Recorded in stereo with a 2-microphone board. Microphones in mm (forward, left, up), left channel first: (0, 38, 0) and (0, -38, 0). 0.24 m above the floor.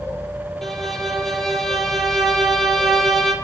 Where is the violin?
5° left (ahead or behind), 1.2 m.